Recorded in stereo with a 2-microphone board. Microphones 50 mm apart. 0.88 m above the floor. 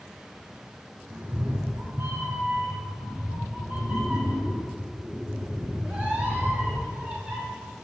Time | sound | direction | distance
1.1 | a cat meowing | 30° right (ahead or behind) | 1.2 m